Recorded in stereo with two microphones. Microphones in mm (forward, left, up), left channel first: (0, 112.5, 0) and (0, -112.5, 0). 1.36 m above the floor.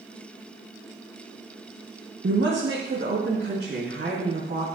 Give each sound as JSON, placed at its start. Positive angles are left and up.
{"t": 2.2, "sound": "a woman speaking", "side_deg": -50, "distance_m": 1.1}